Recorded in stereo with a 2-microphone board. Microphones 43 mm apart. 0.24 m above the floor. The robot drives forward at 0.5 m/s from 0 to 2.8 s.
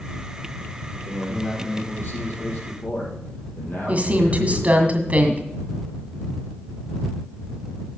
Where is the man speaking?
55° left (ahead or behind), 5.5 m; by 4.9 s 50° left (ahead or behind), 6 m.